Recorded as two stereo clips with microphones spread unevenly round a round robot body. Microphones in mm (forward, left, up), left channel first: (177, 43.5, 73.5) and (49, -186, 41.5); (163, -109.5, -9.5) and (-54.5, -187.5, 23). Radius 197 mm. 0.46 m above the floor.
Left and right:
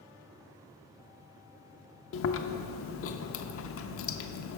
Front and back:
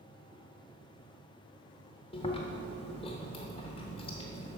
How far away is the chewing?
About 0.6 m.